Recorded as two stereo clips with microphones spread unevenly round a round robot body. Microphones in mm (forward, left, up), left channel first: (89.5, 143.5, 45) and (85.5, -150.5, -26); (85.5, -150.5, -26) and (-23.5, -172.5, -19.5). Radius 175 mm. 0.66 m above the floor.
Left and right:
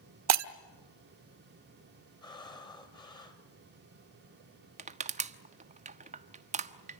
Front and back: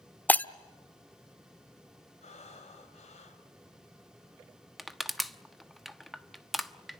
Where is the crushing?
75° right, 1.1 m.